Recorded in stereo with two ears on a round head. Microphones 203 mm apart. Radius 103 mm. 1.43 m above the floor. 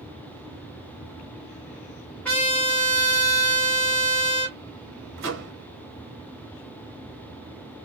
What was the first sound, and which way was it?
A trumpet, 5° left (ahead or behind).